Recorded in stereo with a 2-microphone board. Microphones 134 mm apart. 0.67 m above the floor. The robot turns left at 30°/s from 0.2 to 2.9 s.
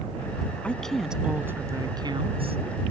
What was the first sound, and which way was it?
A woman speaking, 10° left.